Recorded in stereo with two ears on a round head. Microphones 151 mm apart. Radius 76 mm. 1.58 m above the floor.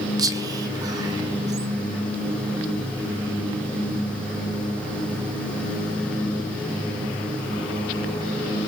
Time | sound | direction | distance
0.2 | whispering | 25° right (ahead or behind) | 1.3 m